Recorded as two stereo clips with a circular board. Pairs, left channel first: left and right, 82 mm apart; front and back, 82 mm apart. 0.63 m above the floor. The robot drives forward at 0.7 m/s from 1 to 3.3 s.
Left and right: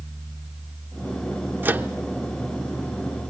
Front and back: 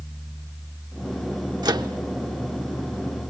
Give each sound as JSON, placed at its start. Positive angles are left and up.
{"t": 1.6, "sound": "a microwave", "azimuth_deg": -150, "distance_m": 0.9}